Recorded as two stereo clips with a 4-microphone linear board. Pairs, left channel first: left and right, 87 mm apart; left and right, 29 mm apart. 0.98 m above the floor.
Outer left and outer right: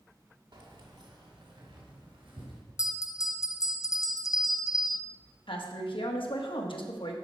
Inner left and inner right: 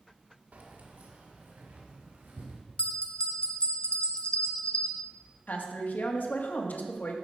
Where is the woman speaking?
75° left (ahead or behind), 1.4 m.